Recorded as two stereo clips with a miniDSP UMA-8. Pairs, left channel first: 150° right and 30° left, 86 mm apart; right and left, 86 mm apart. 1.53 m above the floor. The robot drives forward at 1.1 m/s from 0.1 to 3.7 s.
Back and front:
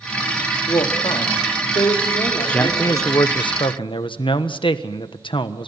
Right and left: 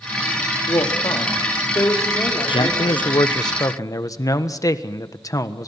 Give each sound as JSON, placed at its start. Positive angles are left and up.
{"t": 0.7, "sound": "a woman speaking", "azimuth_deg": -125, "distance_m": 3.0}
{"t": 2.5, "sound": "a man speaking", "azimuth_deg": -75, "distance_m": 1.0}